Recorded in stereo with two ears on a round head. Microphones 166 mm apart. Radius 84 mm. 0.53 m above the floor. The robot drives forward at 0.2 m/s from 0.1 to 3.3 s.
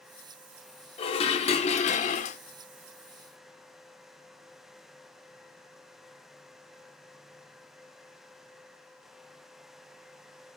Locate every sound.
1.0 s dishes clattering: 30° left (ahead or behind), 0.6 m; by 2.4 s 40° left (ahead or behind), 0.5 m